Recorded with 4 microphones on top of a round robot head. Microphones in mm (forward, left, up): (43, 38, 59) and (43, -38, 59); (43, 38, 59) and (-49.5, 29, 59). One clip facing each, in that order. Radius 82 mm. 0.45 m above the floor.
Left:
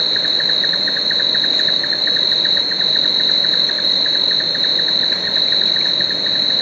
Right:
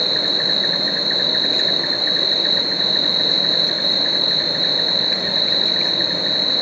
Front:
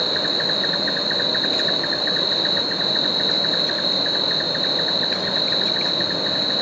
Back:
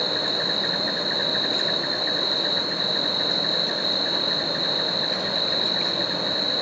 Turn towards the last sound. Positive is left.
turn(degrees=45)